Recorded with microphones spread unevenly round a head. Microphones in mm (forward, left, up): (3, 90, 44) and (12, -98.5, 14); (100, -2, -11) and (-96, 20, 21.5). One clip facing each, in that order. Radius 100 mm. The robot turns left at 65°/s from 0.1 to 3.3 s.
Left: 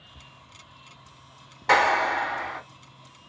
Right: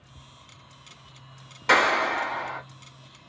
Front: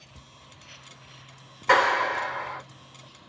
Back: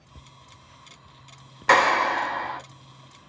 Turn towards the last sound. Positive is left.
turn(degrees=110)